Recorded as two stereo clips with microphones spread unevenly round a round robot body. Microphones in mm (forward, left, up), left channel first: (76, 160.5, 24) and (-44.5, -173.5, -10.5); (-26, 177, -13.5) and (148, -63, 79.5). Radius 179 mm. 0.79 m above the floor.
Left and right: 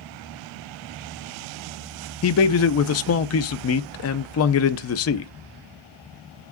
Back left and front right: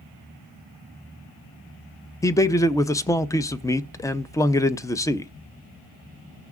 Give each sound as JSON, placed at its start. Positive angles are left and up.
{"t": 2.2, "sound": "a man speaking", "azimuth_deg": 90, "distance_m": 0.5}